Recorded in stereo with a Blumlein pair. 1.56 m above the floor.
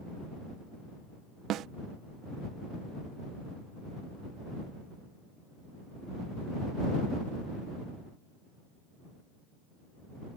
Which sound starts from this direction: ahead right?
A snare drum, at 1.5 s.